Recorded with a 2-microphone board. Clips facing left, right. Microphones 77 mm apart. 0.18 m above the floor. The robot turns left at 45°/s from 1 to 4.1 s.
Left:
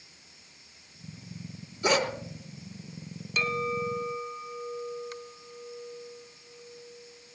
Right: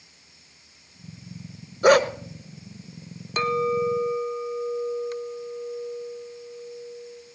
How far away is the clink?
About 1.3 m.